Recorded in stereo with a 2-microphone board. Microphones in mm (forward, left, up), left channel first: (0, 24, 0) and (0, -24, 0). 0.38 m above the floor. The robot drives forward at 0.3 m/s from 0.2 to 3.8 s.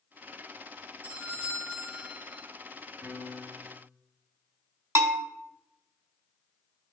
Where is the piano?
60° right (ahead or behind), 1.6 m; by 3.9 s 50° right (ahead or behind), 1.7 m.